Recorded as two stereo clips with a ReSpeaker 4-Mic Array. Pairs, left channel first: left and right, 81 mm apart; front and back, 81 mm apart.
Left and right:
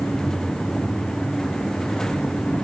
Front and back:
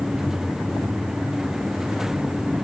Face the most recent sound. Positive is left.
No sound to turn to.